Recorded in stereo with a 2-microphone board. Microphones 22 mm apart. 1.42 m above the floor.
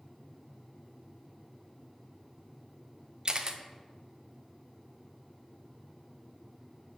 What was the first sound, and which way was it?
A camera shutter, 35° right (ahead or behind).